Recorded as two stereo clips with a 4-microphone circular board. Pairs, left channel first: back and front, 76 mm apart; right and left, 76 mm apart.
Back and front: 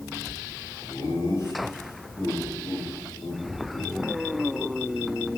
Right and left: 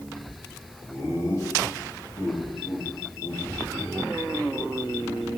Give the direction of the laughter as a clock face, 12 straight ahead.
4 o'clock.